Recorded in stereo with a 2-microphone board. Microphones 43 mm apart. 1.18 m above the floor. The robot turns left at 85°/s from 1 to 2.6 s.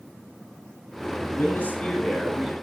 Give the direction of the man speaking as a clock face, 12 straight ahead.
10 o'clock.